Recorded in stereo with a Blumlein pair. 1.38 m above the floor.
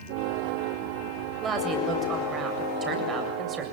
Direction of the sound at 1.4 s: 25° right.